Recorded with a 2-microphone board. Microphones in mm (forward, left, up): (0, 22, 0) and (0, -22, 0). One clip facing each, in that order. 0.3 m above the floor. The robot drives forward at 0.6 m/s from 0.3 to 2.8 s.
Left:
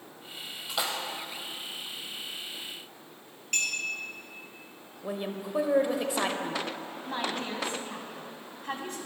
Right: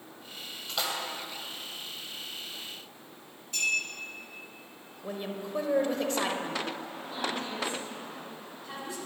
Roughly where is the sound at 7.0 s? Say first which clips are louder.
Left 2 dB; left.